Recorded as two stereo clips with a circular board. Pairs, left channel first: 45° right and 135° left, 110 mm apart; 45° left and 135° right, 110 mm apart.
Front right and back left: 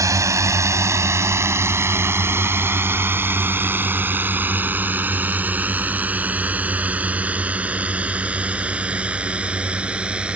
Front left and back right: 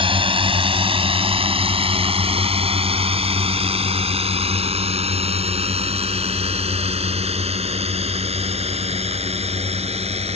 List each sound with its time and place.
0.0 s a drone: 165° right; by 10.3 s 145° right